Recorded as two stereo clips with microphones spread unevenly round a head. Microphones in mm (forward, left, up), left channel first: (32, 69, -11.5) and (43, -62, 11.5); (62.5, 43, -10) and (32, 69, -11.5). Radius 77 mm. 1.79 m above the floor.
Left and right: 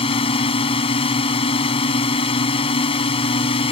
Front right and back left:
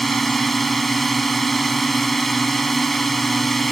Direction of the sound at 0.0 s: 45° left.